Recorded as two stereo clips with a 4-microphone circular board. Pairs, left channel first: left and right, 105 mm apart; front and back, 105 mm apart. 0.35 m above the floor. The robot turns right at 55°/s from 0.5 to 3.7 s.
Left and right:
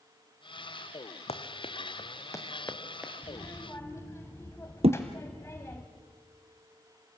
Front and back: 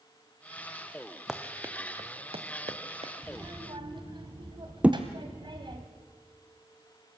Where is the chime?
I don't hear a chime.